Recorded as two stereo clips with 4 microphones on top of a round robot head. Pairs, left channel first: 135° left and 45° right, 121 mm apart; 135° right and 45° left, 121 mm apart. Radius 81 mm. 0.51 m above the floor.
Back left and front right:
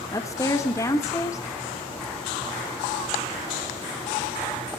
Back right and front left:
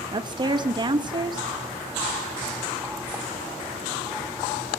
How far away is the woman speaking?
About 1.9 m.